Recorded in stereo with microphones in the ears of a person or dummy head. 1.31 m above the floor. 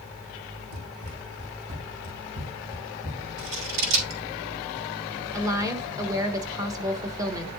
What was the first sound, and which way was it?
Running footsteps, 70° right (ahead or behind).